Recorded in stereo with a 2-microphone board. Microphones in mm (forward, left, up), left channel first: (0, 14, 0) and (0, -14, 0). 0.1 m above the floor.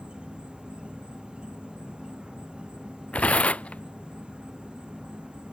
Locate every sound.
0.0 s an insect: 35° right (ahead or behind)
3.1 s tearing paper: 50° left (ahead or behind)